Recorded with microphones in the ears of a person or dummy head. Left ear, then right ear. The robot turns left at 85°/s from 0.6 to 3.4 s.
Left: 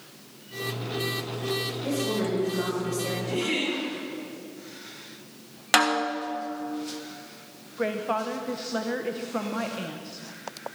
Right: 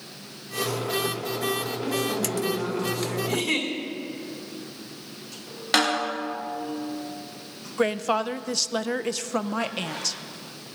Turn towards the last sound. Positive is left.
turn(degrees=-80)